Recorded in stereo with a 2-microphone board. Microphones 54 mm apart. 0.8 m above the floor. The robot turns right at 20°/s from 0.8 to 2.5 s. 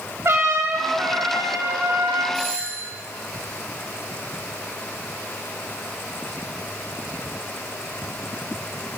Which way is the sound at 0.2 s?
50° right (ahead or behind).